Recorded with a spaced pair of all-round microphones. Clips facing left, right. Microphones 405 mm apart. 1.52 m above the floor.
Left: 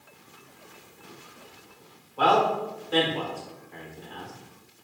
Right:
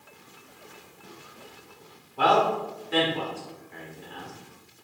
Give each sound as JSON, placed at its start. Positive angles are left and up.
{"t": 2.2, "sound": "a man speaking", "side_deg": -40, "distance_m": 1.0}